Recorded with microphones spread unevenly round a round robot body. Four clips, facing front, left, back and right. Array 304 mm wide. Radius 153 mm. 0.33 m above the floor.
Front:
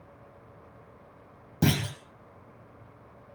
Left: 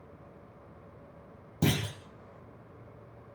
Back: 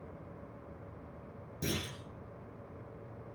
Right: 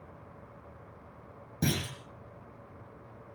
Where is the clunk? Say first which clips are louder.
Left 3 dB, front 11 dB; straight ahead, 4.5 m.